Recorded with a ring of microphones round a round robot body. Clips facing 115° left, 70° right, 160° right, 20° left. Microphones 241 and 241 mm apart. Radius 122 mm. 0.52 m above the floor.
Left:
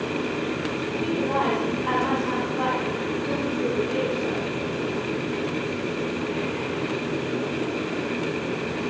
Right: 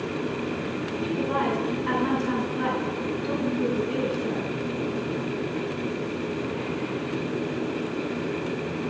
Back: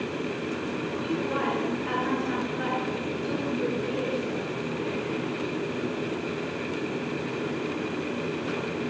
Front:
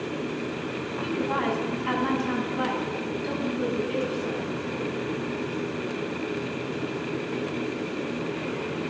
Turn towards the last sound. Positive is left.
turn(degrees=-5)